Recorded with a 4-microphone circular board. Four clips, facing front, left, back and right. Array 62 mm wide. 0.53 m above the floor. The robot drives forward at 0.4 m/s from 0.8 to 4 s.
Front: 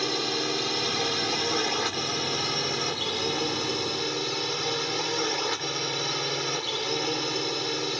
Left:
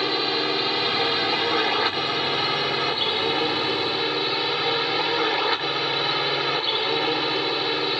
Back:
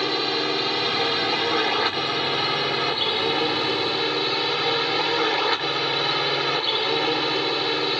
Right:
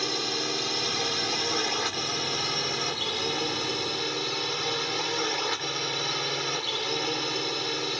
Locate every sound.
0.0 s a drone: 130° left; by 8.0 s 140° left